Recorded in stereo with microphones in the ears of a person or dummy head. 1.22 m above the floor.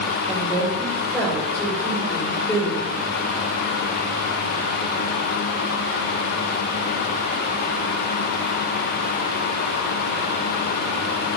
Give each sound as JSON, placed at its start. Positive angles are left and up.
{"t": 0.3, "sound": "a woman speaking", "side_deg": 15, "distance_m": 5.5}